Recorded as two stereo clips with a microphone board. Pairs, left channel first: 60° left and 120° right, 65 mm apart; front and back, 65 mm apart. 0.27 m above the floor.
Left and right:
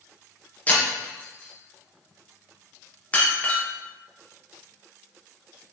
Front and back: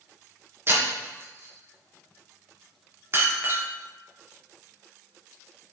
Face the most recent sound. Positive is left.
turn(degrees=130)